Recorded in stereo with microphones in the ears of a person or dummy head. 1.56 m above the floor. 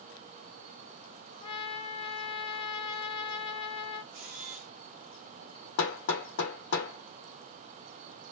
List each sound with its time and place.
1.4 s a trumpet: 30° left (ahead or behind), 1.0 m
4.1 s a camera shutter: 45° right (ahead or behind), 1.1 m
5.8 s hammering: 65° left (ahead or behind), 0.9 m